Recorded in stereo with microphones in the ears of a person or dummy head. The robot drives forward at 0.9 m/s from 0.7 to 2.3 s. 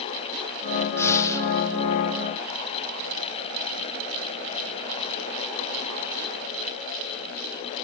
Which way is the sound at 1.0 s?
10° left (ahead or behind).